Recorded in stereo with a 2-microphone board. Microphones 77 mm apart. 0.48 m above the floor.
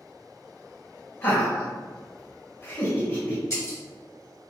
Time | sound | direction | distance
1.2 | laughter | 20° left (ahead or behind) | 1.8 m
3.5 | breaking glass | 40° left (ahead or behind) | 1.5 m